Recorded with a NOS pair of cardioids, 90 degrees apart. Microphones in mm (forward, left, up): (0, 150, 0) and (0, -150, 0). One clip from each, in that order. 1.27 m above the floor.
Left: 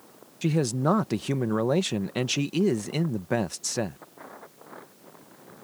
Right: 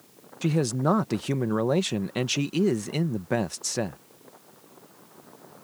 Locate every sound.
0.4 s a man speaking: straight ahead